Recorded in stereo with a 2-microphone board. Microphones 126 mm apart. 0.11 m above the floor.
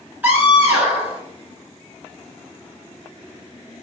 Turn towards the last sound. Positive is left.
turn(degrees=-15)  # may be behind; listen again after turning